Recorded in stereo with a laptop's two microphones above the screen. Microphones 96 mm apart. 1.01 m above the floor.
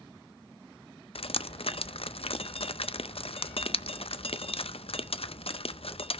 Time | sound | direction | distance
1.1 | dripping | 70° left (ahead or behind) | 0.5 m